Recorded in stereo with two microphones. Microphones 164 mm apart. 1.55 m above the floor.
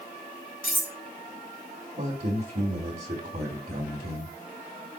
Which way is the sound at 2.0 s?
60° right (ahead or behind).